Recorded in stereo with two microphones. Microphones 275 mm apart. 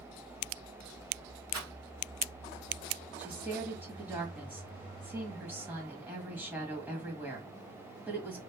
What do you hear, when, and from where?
1.5 s a rattle: 70° right (ahead or behind), 1.1 m
3.2 s a woman speaking: 5° right (ahead or behind), 1.5 m